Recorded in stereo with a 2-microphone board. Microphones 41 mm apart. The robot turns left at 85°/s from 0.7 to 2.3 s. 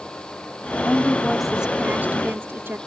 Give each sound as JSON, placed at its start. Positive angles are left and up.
{"t": 0.8, "sound": "a woman speaking", "azimuth_deg": 55}